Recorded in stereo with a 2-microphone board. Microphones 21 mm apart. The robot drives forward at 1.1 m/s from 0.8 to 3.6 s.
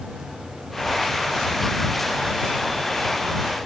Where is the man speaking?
No man speaking in this recording.